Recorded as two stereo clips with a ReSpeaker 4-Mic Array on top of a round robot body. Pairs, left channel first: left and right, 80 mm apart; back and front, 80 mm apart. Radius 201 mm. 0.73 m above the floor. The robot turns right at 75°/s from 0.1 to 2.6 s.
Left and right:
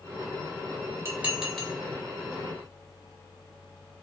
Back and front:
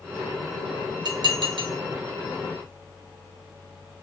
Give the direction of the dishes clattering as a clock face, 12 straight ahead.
1 o'clock.